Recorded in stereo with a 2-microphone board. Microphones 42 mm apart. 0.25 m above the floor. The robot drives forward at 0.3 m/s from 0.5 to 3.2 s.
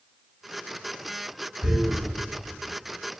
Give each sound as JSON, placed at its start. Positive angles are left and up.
{"t": 1.6, "sound": "tearing paper", "side_deg": -55, "distance_m": 1.3}